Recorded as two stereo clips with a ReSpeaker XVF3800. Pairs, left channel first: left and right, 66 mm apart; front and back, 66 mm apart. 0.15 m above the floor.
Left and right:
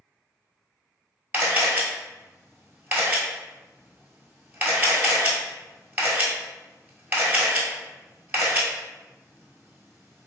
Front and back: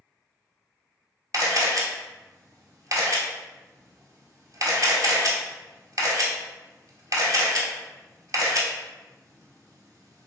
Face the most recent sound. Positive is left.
turn(degrees=-155)